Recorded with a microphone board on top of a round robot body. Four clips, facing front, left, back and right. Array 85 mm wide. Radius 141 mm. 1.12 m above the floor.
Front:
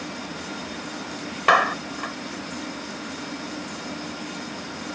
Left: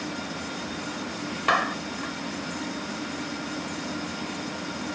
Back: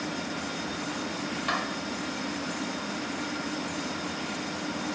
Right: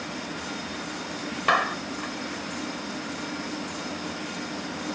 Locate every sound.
1.5 s a clap: 5° right